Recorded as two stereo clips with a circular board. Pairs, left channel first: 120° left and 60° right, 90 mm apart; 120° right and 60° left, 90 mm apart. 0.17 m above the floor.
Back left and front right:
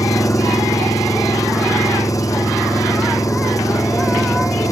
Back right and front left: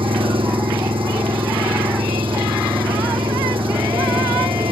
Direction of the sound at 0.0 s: 70° left.